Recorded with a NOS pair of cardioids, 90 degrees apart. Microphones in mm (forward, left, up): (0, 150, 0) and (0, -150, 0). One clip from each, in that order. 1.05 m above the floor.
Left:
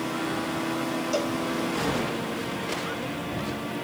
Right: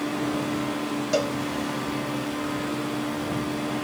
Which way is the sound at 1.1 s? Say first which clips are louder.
Right 4 dB; 25° right.